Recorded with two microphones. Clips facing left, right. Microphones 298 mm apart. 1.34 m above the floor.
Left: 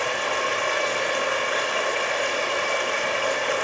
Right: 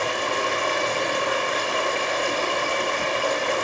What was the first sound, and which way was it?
Running water, 45° right (ahead or behind).